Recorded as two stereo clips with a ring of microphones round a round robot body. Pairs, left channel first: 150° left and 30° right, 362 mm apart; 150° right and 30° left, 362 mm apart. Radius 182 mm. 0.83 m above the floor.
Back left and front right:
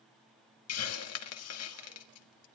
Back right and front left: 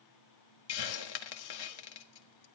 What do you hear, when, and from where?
0.7 s a hiss: 165° right, 1.4 m